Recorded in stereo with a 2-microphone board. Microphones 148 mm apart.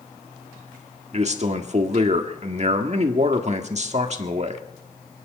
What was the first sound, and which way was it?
A man speaking, 50° right (ahead or behind).